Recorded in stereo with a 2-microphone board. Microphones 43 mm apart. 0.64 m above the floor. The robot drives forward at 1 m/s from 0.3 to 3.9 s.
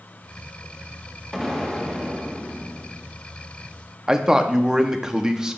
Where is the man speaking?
15° right (ahead or behind), 0.5 m.